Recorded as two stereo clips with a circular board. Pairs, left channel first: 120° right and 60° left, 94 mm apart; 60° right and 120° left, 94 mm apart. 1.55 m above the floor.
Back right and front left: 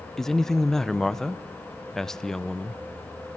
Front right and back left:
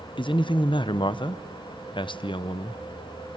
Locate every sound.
0.2 s a man speaking: 35° right, 0.7 m